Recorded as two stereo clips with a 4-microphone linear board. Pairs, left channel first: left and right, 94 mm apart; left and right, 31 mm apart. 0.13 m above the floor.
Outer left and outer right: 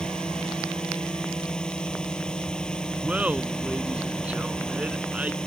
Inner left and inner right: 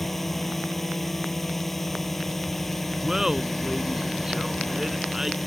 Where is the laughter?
15° right (ahead or behind).